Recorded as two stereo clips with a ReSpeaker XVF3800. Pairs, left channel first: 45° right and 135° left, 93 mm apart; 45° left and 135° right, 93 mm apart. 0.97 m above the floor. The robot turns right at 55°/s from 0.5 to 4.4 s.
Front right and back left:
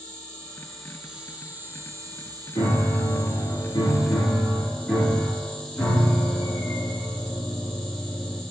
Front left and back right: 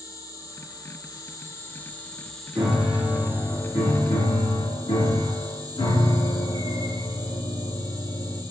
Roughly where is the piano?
Right.